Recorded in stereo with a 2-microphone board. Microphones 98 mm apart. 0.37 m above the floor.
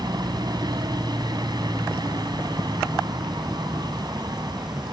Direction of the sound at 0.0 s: 45° right (ahead or behind).